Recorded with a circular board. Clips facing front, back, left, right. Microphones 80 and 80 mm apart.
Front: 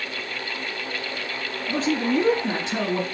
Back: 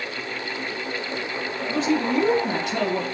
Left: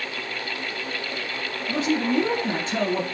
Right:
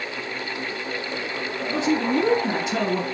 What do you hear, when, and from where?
1.7 s a man speaking: 30° right, 2 m; by 3.0 s 25° right, 1.6 m